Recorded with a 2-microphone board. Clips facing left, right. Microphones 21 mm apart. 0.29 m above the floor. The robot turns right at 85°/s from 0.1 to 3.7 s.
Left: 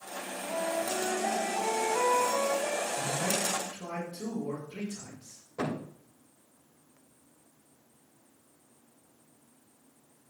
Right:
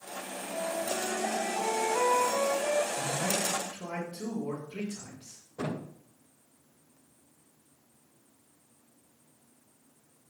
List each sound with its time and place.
0.2 s a flute: 35° left, 1.5 m; by 2.8 s 95° right, 1.5 m
2.9 s a man speaking: 155° right, 5.5 m; by 5.4 s 90° right, 5.5 m
5.6 s a thud: 50° left (ahead or behind), 6.5 m